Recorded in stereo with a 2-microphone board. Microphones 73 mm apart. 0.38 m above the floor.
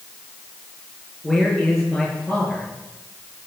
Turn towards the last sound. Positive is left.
turn(degrees=5)  # may be behind; listen again after turning